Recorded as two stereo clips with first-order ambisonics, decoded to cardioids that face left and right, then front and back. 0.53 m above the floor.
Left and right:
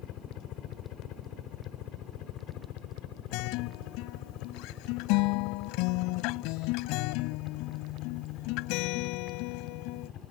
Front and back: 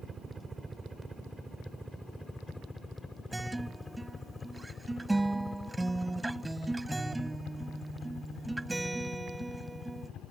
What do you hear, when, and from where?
0.0 s a helicopter: 110° left; by 10.3 s 45° left
3.3 s a guitar: 95° left